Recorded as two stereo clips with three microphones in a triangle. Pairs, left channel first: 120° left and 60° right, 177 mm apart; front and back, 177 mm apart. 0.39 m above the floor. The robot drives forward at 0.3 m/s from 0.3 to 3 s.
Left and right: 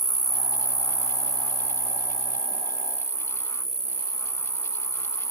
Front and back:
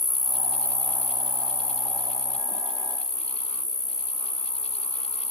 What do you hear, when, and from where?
0.0 s an insect: 145° left, 0.7 m; by 5.3 s 170° left, 1.3 m